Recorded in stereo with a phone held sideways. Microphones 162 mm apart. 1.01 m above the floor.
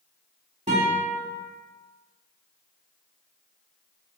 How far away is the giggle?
No giggle in this recording.